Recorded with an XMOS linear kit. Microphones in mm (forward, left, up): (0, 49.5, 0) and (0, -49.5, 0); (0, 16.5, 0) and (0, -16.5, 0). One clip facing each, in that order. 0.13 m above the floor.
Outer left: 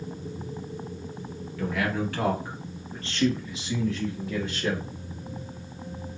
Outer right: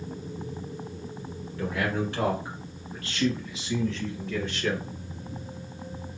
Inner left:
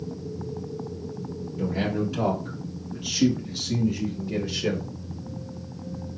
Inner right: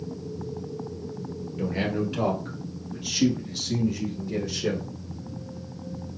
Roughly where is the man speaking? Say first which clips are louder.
Outer left 1 dB, inner left 1 dB; right.